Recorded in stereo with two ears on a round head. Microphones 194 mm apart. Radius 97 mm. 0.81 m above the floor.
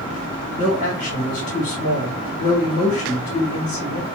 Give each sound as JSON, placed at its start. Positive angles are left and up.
{"t": 0.6, "sound": "a man speaking", "side_deg": 65, "distance_m": 1.4}